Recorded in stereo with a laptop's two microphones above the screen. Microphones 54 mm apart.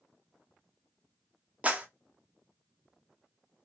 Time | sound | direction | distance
1.6 | a clap | 25° right (ahead or behind) | 0.9 m